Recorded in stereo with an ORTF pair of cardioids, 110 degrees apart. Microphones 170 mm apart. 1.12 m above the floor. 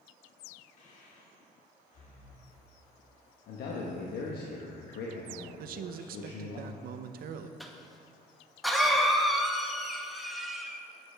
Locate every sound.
0.8 s breathing: 50° left, 1.6 m
3.5 s a man speaking: 65° left, 1.2 m
5.6 s a man speaking: 60° right, 0.6 m
7.6 s a cough: straight ahead, 1.2 m